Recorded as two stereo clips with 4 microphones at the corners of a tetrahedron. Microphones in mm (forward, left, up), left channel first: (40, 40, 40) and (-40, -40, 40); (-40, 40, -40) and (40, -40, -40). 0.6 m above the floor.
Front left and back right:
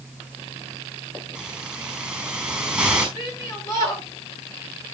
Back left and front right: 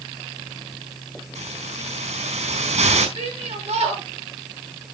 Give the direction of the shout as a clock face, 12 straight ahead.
1 o'clock.